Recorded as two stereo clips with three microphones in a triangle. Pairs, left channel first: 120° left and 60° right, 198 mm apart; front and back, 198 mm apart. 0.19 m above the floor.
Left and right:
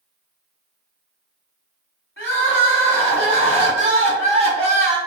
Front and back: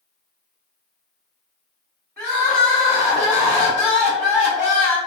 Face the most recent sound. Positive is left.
turn(degrees=-85)